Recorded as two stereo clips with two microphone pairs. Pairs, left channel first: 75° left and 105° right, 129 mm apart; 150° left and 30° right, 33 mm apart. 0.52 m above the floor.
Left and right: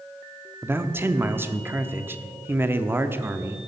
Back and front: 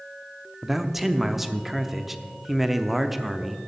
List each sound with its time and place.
0.6 s a man speaking: 100° right, 0.7 m